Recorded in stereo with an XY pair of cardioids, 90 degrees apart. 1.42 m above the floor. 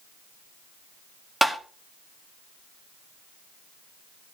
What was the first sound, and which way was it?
Tapping, 10° right.